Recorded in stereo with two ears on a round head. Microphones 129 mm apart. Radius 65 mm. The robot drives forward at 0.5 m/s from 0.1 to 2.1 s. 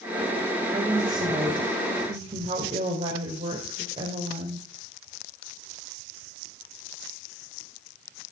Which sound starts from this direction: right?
A woman speaking, at 0.7 s.